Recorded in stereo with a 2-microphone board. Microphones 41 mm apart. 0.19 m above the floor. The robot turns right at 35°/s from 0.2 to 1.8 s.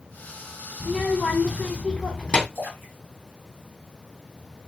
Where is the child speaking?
15° left, 0.8 m; by 2.5 s 50° left, 0.8 m.